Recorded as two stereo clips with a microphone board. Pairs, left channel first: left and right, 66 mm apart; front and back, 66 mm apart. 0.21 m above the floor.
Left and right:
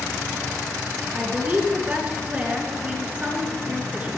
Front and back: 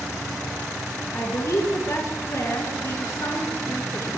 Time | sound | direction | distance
1.1 | a woman speaking | 25° right | 3.5 m